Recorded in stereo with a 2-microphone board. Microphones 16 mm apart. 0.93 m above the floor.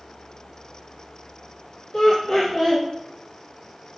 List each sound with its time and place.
1.9 s laughter: 60° left (ahead or behind), 1.7 m